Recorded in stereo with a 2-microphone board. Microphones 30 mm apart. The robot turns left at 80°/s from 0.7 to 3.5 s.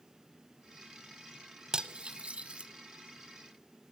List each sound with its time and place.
1.7 s cutlery clinking: 25° right (ahead or behind), 0.8 m; by 2.7 s 35° right (ahead or behind), 0.8 m